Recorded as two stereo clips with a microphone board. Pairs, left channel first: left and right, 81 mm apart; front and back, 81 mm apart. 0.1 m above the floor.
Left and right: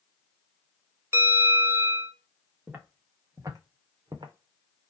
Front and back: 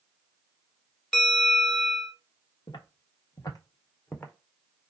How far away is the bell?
About 1.7 m.